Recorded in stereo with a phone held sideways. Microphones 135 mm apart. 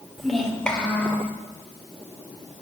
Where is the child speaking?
Centre (ahead or behind), 2.5 m; by 1.3 s 15° left (ahead or behind), 3 m.